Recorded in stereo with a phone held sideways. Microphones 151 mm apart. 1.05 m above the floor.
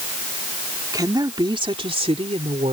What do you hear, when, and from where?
0.9 s a woman speaking: 25° right (ahead or behind); by 2.7 s 45° right (ahead or behind)